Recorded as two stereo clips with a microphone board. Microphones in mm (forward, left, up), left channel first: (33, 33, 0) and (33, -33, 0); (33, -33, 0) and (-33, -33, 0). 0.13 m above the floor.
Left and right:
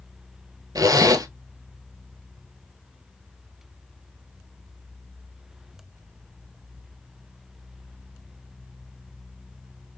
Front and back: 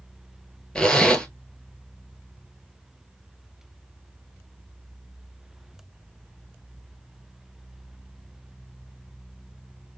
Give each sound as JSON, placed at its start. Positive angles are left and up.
{"t": 0.8, "sound": "a zipper", "azimuth_deg": -80, "distance_m": 0.9}